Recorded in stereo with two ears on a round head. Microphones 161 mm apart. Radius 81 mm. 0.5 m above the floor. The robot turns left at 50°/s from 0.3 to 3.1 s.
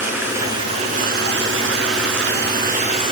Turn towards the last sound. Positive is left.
turn(degrees=-150)